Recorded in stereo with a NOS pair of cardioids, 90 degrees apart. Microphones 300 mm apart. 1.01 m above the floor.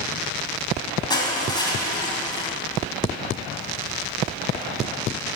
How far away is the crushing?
About 3 m.